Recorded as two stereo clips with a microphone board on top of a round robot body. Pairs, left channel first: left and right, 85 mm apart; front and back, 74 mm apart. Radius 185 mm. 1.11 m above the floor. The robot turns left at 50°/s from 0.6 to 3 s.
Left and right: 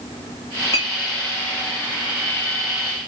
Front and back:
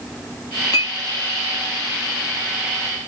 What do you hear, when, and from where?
0.7 s a clink: 35° left, 0.6 m; by 0.9 s 25° left, 0.6 m